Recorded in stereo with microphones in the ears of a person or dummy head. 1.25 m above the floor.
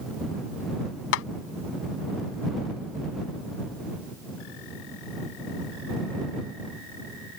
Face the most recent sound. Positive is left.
turn(degrees=85)